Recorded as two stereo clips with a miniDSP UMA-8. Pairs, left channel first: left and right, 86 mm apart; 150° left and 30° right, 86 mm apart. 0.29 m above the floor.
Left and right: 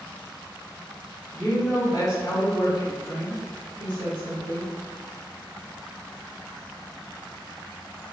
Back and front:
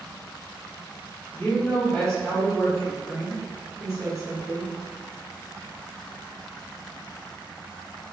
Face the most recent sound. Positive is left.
turn(degrees=40)